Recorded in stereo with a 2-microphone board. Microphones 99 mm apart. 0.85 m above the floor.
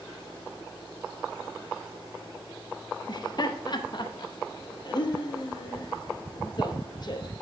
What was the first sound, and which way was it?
Laughter, 50° left (ahead or behind).